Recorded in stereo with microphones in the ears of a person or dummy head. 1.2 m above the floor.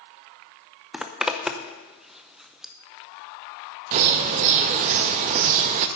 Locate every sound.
0.9 s a zipper: 5° right (ahead or behind), 0.6 m
3.9 s a bird: 40° right (ahead or behind), 0.5 m